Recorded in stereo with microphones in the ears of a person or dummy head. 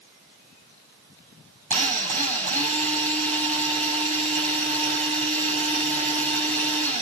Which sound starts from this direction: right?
A drill, at 1.7 s.